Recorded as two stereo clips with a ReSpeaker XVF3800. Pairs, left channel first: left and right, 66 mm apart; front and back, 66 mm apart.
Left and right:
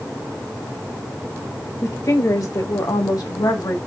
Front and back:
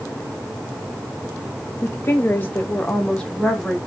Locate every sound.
1.8 s a woman speaking: 50° left, 1.7 m; by 3.8 s 90° left, 1.7 m